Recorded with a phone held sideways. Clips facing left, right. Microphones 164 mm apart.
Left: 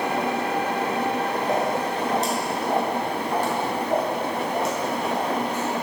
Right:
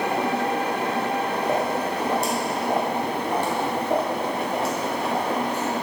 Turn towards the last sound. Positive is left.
turn(degrees=-35)  # may be behind; listen again after turning